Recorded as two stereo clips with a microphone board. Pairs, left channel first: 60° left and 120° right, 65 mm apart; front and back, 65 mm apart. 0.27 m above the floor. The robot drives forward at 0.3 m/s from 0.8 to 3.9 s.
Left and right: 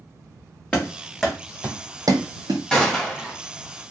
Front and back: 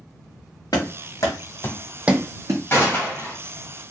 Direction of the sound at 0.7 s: 15° right.